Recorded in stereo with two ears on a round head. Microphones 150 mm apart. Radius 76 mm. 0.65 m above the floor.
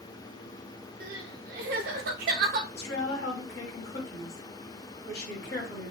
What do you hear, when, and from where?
1.0 s crying: 55° right (ahead or behind), 0.5 m
2.7 s a woman speaking: 65° left (ahead or behind), 1.7 m